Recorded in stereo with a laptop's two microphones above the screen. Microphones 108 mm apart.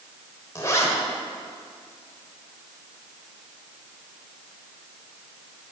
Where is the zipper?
30° left (ahead or behind), 1.4 m.